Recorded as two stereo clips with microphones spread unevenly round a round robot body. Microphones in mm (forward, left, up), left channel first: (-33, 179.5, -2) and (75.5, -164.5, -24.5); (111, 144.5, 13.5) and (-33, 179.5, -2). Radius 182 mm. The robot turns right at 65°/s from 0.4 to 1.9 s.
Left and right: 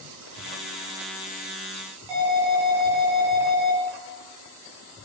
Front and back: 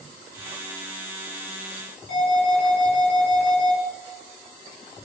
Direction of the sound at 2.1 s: 50° right.